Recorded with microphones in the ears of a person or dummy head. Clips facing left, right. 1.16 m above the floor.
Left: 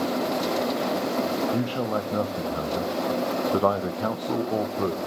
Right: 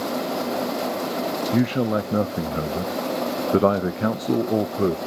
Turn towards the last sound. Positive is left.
turn(degrees=-25)  # may be behind; listen again after turning